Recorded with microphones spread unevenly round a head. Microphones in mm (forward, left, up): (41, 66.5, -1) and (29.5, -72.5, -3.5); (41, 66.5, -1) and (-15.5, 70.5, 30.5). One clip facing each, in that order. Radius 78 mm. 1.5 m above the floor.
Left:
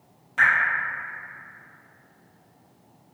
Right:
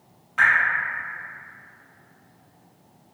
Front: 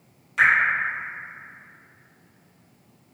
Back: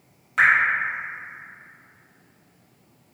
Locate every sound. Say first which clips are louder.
0.4 s dripping: right 1 dB, back 1 dB; 150° left, 1.1 m